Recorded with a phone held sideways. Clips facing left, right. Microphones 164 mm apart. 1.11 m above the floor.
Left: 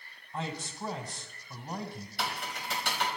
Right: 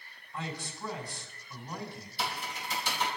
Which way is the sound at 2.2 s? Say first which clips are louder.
Even; 75° left (ahead or behind).